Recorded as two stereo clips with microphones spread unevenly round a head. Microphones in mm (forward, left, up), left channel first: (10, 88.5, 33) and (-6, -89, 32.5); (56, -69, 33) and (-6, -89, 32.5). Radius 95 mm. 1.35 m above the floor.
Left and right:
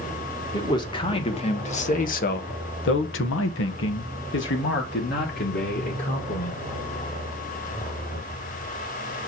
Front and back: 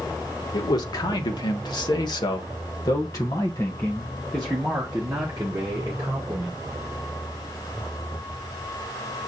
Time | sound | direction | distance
0.5 | a man speaking | 15° left | 1.7 m